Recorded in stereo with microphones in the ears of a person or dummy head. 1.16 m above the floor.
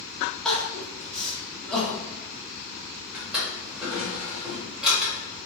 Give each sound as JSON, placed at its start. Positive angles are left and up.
{"t": 0.5, "sound": "crying", "side_deg": 0, "distance_m": 1.0}
{"t": 3.1, "sound": "a drawer", "side_deg": -5, "distance_m": 1.4}